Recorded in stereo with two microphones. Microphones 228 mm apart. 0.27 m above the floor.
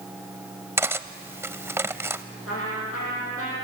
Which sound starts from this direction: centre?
Cutlery clinking, at 0.8 s.